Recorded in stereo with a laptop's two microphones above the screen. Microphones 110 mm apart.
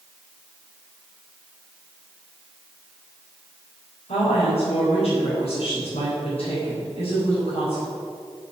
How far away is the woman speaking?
About 4.5 m.